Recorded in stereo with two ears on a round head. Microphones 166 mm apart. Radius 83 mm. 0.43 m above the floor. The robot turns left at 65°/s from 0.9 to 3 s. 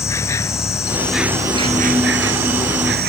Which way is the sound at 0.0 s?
15° left.